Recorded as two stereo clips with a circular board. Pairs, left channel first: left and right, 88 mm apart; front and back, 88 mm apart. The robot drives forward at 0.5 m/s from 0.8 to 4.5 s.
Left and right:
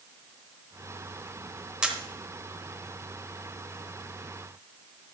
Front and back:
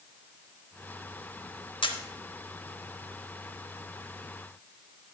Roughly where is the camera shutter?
Ahead.